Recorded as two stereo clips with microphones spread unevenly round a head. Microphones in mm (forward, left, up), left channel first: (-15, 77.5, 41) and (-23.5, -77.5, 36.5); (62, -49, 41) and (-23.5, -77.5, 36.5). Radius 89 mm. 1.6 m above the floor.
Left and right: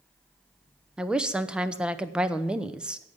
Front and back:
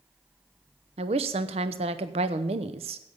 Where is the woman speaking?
Straight behind, 0.6 m.